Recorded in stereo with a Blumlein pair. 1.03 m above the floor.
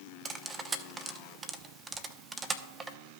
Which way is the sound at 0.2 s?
15° right.